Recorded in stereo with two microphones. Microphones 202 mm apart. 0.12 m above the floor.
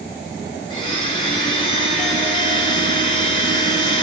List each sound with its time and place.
0.7 s a blender: 25° left (ahead or behind), 1.9 m